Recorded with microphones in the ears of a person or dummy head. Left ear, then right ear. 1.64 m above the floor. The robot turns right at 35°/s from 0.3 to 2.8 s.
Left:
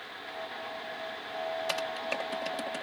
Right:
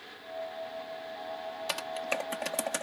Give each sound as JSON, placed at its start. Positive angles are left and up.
{"t": 1.7, "sound": "typing on a keyboard", "side_deg": -5}